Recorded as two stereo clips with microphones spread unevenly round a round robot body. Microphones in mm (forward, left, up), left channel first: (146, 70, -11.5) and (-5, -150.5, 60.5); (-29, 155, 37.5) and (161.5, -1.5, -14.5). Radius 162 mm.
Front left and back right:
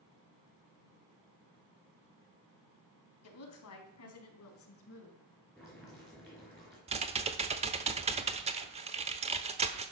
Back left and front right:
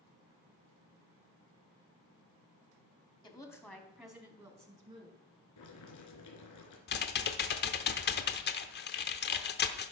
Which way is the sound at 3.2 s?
60° left.